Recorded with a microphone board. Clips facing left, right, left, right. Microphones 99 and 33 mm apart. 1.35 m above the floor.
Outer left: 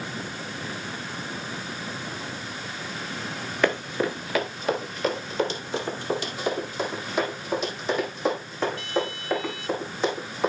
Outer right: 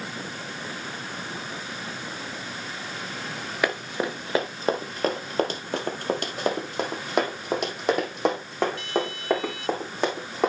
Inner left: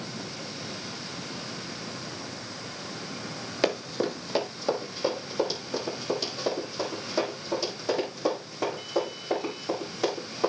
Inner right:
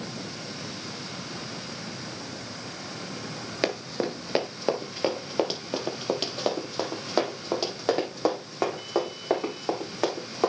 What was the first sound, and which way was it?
Running footsteps, 10° right (ahead or behind).